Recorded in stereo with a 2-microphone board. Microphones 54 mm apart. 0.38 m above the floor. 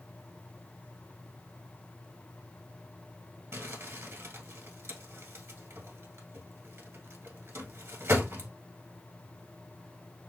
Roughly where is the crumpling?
Right.